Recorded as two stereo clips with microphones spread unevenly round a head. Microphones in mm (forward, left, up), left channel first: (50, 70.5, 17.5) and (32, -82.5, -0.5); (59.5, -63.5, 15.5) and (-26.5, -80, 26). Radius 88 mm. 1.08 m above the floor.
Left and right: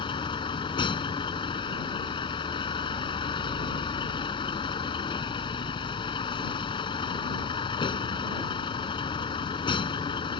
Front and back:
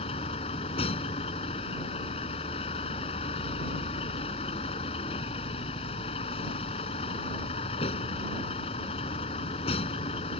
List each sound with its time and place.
0.0 s a vehicle: 30° left